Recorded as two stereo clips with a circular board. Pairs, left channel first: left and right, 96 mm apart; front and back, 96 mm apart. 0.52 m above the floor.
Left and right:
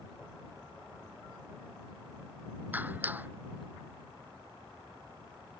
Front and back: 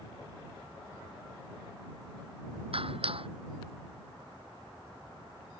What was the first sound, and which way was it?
A clap, 160° right.